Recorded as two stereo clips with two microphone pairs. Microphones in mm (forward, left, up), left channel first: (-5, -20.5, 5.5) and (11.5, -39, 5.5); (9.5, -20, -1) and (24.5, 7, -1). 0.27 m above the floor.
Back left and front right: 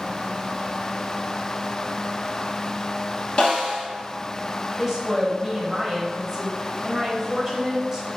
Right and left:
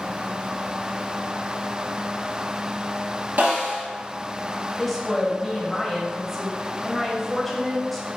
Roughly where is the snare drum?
Left.